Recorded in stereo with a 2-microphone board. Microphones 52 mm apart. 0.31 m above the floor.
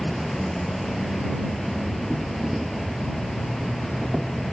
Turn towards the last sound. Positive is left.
turn(degrees=0)  # may be behind; listen again after turning